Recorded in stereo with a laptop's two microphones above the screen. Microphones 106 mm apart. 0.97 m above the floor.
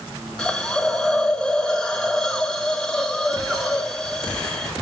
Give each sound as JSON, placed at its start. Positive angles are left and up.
{"t": 0.4, "sound": "a hiss", "side_deg": 5, "distance_m": 1.0}